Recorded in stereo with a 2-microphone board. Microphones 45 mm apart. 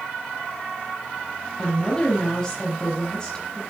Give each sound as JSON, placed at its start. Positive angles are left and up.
{"t": 1.6, "sound": "a woman speaking", "side_deg": 20, "distance_m": 6.5}